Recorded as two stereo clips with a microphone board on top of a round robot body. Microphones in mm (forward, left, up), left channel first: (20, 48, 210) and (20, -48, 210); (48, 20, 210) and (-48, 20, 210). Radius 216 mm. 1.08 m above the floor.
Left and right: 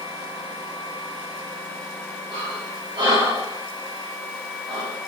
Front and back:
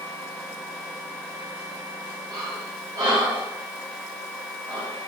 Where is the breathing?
130° right, 1.0 m.